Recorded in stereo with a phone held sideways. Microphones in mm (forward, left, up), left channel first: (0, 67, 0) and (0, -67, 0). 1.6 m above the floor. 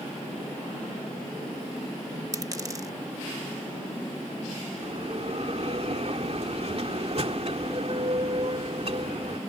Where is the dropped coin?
25° right (ahead or behind).